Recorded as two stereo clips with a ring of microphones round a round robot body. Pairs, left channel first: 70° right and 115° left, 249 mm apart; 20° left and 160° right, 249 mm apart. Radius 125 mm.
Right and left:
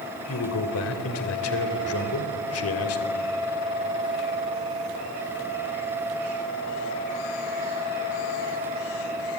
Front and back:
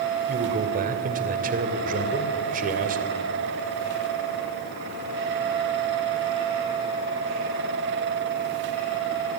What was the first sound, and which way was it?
A man speaking, 100° right.